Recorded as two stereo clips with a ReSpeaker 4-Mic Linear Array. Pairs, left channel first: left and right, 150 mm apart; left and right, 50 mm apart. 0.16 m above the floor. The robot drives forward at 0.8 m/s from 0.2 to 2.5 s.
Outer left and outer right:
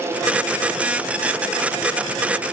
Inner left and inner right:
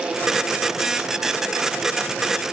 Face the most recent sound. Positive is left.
No sound to turn to.